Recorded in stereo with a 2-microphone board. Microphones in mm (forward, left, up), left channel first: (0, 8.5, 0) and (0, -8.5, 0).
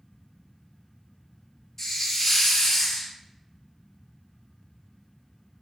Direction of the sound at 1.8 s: 25° left (ahead or behind).